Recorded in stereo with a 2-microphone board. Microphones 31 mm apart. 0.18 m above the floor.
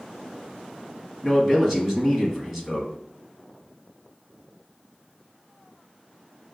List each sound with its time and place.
1.2 s a man speaking: 5° right (ahead or behind), 1.2 m